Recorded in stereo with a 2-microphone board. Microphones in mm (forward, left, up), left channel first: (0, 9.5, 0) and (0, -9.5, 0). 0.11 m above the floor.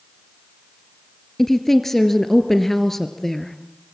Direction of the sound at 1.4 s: 15° left (ahead or behind).